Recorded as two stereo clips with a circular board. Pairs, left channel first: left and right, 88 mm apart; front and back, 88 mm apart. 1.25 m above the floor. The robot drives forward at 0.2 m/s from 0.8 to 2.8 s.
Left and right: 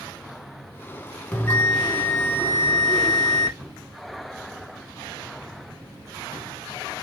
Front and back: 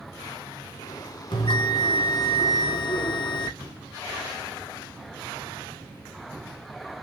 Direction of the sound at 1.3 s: 20° left.